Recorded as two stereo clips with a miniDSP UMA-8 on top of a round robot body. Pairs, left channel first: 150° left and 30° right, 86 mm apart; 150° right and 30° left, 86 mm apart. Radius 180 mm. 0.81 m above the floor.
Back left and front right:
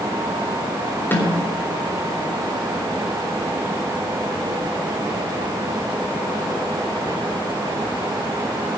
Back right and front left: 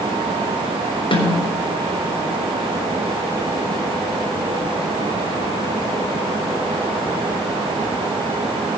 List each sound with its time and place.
1.1 s a snare drum: 140° right, 4 m